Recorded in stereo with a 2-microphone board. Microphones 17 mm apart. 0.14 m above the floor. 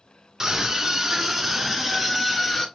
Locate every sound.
0.4 s a scream: 30° right (ahead or behind), 1.3 m; by 2.6 s 5° right (ahead or behind), 1.9 m